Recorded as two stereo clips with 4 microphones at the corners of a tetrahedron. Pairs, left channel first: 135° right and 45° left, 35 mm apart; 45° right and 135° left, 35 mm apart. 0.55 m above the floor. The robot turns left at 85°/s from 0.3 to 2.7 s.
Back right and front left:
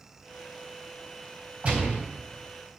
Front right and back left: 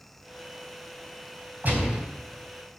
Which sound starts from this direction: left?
A gunshot, at 1.6 s.